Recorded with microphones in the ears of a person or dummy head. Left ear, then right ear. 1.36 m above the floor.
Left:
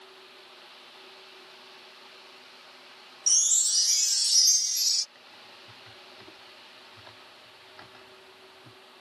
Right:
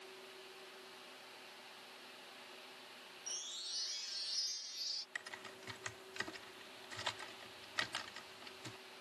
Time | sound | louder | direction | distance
3.3 | a chime | left 21 dB | 85° left | ?
5.2 | typing on a keyboard | right 1 dB | 70° right (ahead or behind) | ?